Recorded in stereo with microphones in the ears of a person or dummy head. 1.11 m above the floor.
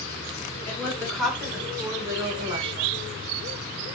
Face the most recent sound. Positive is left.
turn(degrees=-35)  # may be behind; listen again after turning